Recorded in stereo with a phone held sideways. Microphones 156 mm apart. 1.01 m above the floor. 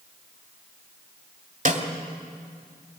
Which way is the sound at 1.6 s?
50° right (ahead or behind).